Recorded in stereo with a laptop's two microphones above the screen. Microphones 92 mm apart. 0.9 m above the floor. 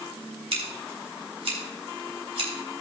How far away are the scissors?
About 2.5 m.